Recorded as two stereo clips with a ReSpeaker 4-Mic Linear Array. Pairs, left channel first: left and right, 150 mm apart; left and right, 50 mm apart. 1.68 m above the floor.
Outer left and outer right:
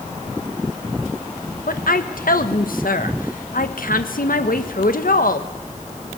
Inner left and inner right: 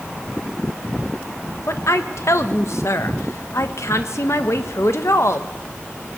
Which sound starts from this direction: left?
A woman speaking, at 1.7 s.